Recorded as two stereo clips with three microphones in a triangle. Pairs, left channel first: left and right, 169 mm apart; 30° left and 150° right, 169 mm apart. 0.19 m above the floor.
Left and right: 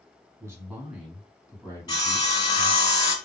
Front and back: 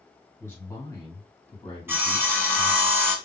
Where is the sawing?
140° left, 1.1 m.